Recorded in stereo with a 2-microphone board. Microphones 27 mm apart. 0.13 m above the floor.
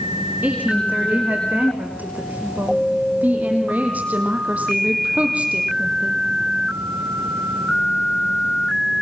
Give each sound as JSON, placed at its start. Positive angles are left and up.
{"t": 0.4, "sound": "a woman speaking", "side_deg": -75, "distance_m": 8.0}